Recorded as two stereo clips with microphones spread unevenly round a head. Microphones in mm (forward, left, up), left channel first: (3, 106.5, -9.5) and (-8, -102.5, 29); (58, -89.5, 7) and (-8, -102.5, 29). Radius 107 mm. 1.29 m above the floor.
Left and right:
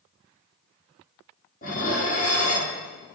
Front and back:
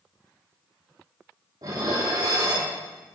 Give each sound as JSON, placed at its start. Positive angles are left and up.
{"t": 1.6, "sound": "dishes clattering", "azimuth_deg": 140, "distance_m": 2.5}